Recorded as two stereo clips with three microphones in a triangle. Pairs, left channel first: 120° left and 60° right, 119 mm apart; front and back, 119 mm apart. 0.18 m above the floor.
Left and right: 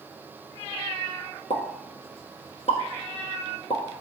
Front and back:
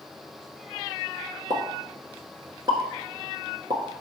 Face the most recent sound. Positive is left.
turn(degrees=125)